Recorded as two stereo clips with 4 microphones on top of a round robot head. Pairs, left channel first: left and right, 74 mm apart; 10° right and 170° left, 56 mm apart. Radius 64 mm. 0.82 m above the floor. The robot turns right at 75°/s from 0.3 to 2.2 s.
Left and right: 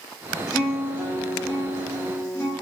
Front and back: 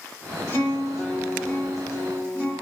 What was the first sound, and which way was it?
A guitar, 10° right.